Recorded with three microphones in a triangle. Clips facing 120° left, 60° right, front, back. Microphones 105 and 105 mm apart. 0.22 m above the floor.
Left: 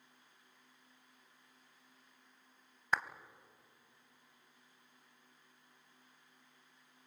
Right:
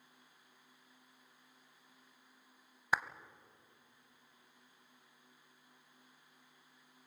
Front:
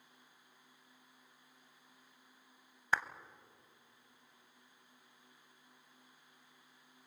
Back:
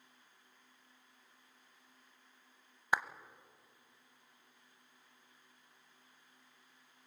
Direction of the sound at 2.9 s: 130° right.